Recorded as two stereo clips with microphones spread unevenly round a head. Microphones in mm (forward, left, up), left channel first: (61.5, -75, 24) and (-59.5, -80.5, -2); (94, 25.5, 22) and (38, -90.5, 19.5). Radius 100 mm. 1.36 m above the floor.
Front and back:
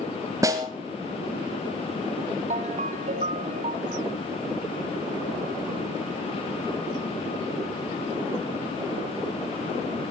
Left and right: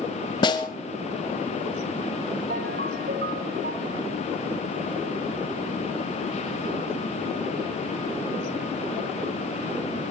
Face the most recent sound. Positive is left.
turn(degrees=-150)